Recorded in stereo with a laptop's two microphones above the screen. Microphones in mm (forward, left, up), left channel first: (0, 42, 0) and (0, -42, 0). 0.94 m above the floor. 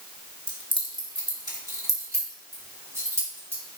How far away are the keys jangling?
About 1.7 m.